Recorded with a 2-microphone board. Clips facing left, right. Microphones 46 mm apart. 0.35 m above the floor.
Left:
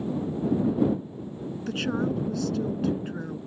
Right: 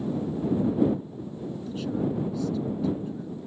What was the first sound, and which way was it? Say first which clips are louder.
A woman speaking: left 2 dB; 65° left (ahead or behind).